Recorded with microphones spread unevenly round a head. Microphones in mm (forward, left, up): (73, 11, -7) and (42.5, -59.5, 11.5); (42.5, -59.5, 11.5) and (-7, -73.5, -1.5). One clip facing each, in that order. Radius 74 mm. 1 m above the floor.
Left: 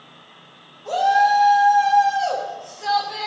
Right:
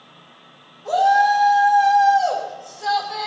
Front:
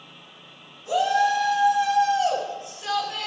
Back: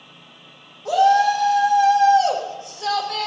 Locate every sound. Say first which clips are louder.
0.8 s a shout: right 1 dB, back 6 dB; 175° left, 7.5 m